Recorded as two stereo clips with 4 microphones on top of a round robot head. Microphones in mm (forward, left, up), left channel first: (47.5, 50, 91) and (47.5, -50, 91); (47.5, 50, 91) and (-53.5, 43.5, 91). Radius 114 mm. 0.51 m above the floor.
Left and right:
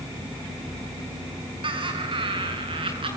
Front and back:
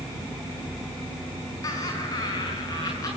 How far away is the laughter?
About 6 m.